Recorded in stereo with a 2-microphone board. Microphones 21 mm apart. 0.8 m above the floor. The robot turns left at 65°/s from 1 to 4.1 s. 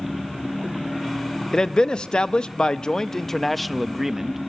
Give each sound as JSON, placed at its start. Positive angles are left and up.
{"t": 1.5, "sound": "a man speaking", "azimuth_deg": 135, "distance_m": 0.6}